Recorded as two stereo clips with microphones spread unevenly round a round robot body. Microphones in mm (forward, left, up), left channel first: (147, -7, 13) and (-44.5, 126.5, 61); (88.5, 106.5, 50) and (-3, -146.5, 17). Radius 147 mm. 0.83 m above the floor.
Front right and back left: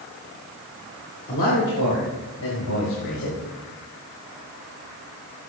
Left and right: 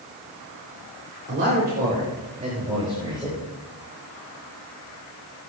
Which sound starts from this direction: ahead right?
A man speaking, at 1.3 s.